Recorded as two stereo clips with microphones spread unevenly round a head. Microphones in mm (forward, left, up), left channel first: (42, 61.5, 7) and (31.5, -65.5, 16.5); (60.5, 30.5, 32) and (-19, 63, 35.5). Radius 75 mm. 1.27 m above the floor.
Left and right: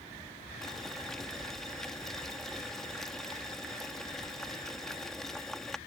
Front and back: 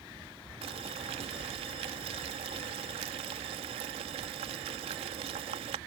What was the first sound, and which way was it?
Boiling, 175° left.